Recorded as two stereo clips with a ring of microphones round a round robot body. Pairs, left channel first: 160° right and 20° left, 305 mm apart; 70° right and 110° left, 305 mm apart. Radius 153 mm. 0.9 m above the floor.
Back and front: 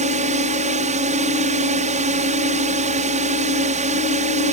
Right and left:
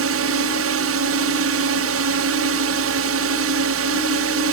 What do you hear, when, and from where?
0.0 s a drone: 85° left